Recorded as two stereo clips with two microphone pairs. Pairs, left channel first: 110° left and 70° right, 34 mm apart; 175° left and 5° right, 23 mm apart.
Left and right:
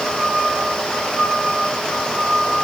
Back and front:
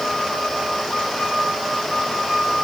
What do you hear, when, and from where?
Only background noise.